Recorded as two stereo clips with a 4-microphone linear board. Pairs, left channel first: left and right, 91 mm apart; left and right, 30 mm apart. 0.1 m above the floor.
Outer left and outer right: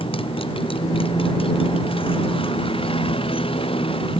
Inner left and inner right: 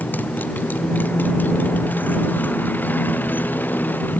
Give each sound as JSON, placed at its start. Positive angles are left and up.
{"t": 0.0, "sound": "a motorcycle", "side_deg": 80}